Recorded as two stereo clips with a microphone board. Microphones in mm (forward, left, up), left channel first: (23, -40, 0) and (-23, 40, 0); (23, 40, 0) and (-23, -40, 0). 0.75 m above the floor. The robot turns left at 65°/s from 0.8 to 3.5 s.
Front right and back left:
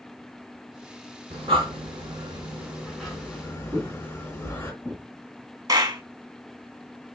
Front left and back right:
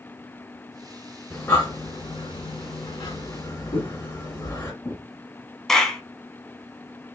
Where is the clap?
145° left, 1.0 m.